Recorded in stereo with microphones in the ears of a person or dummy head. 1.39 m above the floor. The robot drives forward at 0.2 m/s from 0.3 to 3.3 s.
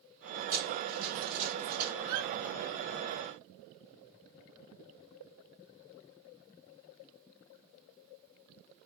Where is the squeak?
60° right (ahead or behind), 1.8 m.